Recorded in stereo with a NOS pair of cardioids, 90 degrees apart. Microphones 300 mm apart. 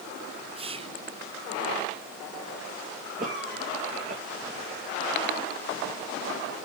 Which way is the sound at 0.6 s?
20° right.